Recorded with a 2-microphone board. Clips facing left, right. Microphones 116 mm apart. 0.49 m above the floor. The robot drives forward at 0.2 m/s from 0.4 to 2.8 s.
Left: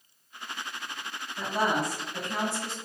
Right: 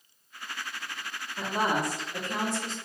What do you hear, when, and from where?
1.4 s a woman speaking: 20° right (ahead or behind), 1.4 m